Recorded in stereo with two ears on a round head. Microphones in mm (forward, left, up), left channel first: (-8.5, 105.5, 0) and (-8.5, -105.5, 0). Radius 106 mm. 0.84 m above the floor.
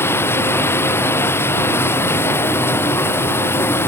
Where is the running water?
10° left (ahead or behind).